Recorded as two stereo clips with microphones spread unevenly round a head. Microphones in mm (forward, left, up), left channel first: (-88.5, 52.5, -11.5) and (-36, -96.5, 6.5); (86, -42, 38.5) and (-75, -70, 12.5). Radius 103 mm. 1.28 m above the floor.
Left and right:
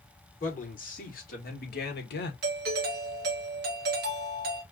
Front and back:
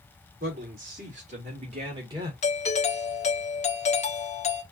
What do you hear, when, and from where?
0.4 s a man speaking: 145° left, 3 m; by 2.3 s 115° left, 1.5 m
2.4 s a doorbell: 40° right, 0.9 m